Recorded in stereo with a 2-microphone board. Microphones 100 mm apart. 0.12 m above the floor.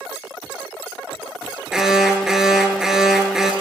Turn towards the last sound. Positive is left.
turn(degrees=-5)  # may be behind; listen again after turning